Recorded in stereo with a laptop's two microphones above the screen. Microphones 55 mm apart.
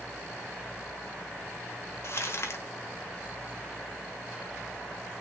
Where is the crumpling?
50° left (ahead or behind), 1.1 m.